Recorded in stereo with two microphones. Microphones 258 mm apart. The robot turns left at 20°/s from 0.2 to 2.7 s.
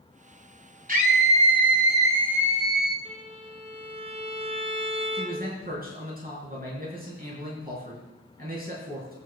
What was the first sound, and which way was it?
A scream, 140° right.